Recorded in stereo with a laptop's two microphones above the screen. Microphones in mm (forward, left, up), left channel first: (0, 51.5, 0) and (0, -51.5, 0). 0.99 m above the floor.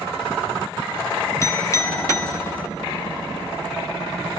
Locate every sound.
1.4 s a clink: 30° left (ahead or behind), 1.4 m